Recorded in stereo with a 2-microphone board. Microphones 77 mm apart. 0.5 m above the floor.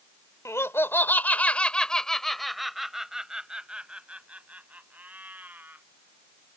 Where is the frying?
I don't hear frying.